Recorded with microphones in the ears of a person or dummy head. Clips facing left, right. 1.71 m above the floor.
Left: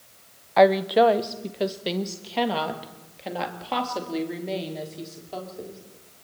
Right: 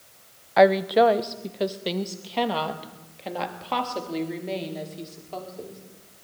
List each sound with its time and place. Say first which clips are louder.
0.6 s a woman speaking: even; centre (ahead or behind), 0.8 m; by 5.8 s 5° left (ahead or behind), 4 m